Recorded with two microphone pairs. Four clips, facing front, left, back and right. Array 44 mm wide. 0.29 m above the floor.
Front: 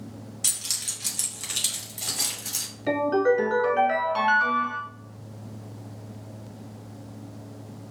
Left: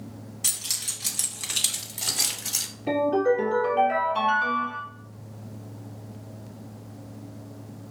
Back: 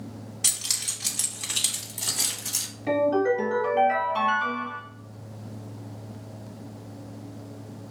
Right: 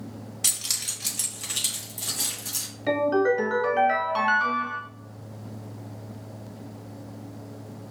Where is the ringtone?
50° right, 1.7 m.